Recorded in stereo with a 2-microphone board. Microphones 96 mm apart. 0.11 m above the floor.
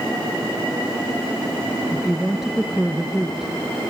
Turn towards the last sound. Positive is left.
turn(degrees=-5)  # may be behind; listen again after turning